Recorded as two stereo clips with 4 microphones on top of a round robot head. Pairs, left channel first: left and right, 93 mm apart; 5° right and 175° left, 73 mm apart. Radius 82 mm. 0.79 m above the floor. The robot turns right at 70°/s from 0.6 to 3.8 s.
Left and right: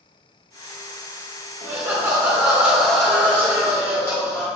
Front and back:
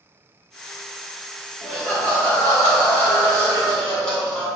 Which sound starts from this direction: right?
Laughter, at 1.6 s.